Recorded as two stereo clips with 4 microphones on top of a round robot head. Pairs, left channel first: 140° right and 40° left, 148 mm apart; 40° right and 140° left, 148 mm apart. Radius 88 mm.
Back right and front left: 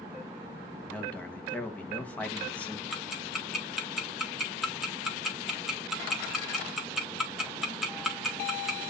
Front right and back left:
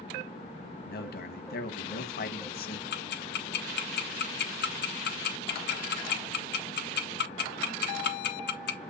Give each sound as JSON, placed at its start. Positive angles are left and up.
{"t": 0.9, "sound": "a man speaking", "azimuth_deg": -60, "distance_m": 1.7}
{"t": 2.9, "sound": "ticking", "azimuth_deg": -45, "distance_m": 1.5}